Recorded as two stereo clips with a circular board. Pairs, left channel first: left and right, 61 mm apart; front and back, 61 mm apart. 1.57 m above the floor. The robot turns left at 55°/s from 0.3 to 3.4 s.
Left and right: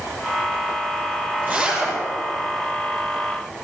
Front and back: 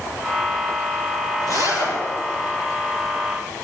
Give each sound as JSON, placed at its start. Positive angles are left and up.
{"t": 1.4, "sound": "a zipper", "azimuth_deg": -155, "distance_m": 6.5}